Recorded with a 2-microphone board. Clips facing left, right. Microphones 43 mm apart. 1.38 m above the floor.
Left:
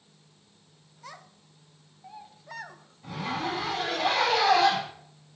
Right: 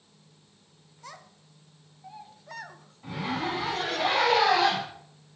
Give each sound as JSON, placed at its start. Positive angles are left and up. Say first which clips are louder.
{"t": 1.0, "sound": "a child speaking", "louder": "even", "side_deg": 5, "distance_m": 0.6}
{"t": 3.0, "sound": "a zipper", "louder": "right 1 dB", "side_deg": -25, "distance_m": 4.5}